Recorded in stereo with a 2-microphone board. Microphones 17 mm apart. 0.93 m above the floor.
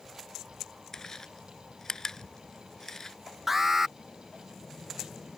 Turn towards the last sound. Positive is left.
turn(degrees=-15)  # may be behind; listen again after turning